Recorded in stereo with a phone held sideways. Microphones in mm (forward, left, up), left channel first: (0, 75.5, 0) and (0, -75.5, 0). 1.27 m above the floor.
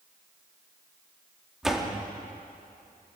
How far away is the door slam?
About 1.9 m.